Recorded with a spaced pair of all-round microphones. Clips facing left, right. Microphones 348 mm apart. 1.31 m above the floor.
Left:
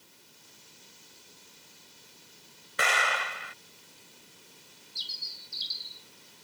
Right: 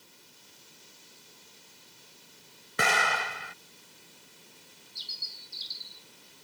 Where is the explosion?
55° right (ahead or behind).